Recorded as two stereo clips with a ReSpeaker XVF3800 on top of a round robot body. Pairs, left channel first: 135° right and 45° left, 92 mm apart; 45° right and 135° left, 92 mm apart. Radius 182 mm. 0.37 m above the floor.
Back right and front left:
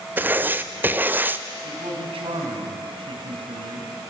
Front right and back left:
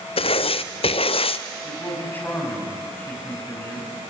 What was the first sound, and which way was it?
Writing, 25° right.